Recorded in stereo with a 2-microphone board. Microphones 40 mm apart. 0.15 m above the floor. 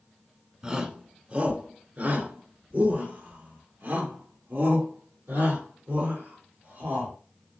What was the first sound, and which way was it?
A shout, 20° right (ahead or behind).